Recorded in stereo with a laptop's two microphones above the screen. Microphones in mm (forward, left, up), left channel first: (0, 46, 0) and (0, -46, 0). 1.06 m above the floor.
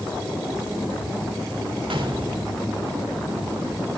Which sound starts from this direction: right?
A gunshot, at 1.9 s.